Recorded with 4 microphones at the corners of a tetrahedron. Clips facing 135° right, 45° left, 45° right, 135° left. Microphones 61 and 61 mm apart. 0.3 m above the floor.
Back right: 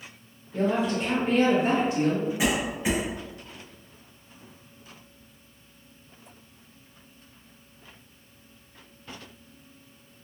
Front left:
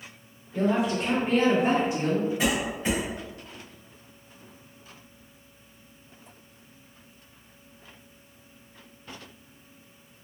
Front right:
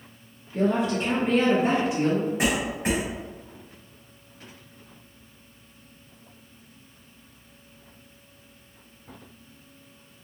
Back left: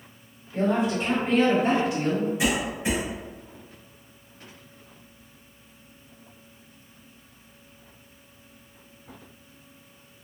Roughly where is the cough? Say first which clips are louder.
Back right 1 dB, even; ahead right.